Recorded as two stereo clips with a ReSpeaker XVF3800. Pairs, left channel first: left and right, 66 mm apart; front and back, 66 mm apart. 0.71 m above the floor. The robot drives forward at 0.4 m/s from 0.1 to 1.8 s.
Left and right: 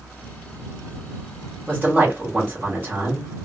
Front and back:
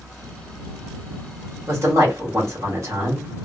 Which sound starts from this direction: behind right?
A man speaking, at 1.7 s.